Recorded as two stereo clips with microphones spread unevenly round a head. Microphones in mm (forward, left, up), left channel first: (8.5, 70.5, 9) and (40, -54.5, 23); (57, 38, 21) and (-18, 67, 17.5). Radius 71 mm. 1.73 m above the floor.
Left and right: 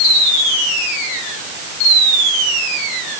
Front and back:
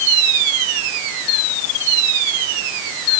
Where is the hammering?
I don't hear hammering.